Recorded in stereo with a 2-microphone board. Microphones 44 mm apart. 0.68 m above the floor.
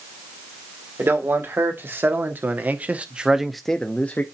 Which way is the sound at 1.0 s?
55° right (ahead or behind).